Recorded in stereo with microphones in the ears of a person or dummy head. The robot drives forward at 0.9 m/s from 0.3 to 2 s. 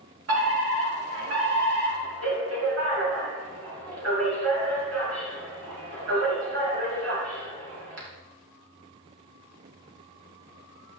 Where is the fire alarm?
70° right (ahead or behind), 6 m; by 8.1 s 80° right, 5.5 m.